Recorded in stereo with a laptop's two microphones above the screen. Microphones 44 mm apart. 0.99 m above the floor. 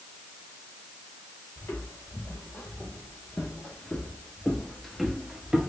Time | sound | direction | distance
1.6 | footsteps | 60° left (ahead or behind) | 2.0 m